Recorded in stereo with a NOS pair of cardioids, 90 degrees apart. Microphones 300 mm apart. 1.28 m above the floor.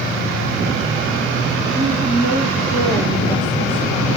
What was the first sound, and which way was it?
A woman speaking, 20° right.